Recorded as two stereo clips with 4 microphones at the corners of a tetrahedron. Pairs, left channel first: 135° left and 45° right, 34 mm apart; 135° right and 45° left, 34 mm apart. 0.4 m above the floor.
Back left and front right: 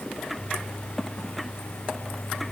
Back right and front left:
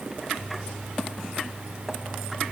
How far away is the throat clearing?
No throat clearing in this recording.